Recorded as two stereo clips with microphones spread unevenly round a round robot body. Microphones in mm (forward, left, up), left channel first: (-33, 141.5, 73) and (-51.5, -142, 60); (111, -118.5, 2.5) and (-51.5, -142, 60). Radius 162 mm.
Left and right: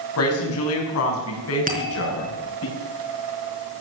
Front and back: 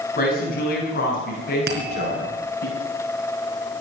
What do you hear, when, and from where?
0.2 s a woman speaking: 45° left, 5.5 m; by 2.7 s 40° left, 7 m
1.7 s a bell: 155° right, 4 m